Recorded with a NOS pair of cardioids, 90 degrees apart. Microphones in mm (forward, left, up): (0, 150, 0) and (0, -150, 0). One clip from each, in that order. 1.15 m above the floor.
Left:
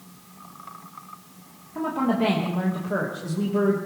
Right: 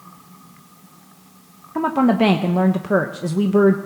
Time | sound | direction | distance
1.8 | a woman speaking | 55° right | 1.0 m